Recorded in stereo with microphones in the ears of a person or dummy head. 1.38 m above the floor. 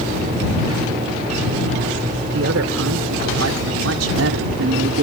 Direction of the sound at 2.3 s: 80° right.